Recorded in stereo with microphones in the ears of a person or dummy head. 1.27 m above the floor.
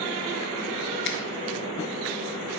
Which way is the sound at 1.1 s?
60° left (ahead or behind).